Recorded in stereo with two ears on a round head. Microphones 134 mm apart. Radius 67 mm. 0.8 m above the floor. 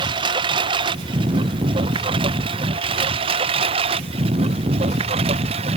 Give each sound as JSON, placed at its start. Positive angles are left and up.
{"t": 0.0, "sound": "a lawn mower", "side_deg": -30}